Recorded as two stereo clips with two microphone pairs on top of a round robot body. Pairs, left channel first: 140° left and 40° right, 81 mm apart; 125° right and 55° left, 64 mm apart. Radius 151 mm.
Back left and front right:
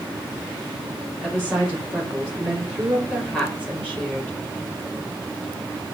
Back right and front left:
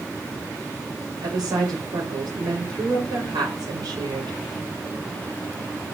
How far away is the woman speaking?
About 3 m.